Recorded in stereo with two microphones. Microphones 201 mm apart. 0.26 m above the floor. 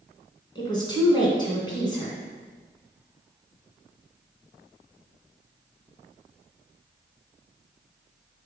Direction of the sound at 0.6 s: 25° left (ahead or behind).